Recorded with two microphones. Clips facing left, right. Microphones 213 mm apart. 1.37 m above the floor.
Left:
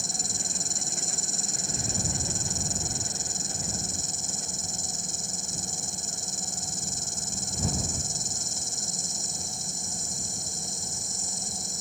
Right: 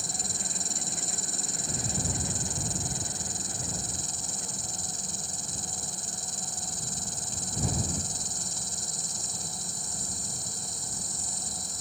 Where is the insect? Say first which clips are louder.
Left 1 dB; 45° left (ahead or behind).